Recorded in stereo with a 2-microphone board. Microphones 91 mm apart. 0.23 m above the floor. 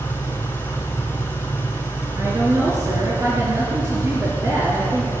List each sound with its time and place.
0.0 s an engine running: 25° left (ahead or behind), 2.5 m
2.2 s a woman speaking: 35° right (ahead or behind), 3.5 m